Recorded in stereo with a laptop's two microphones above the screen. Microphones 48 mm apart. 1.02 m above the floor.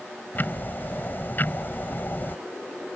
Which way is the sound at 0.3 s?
45° left (ahead or behind).